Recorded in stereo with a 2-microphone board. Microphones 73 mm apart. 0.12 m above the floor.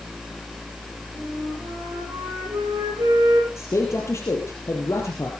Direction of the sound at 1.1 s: 65° right (ahead or behind).